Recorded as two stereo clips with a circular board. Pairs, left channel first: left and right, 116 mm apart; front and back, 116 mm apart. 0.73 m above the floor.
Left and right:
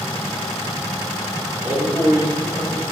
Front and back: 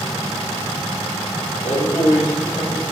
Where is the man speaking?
25° right, 1.7 m.